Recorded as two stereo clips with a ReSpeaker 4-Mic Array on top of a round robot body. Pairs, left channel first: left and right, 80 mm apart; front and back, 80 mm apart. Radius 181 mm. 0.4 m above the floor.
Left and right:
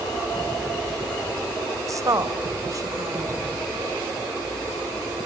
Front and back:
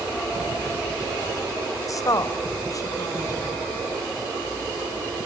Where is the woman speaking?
45° right, 2.5 m.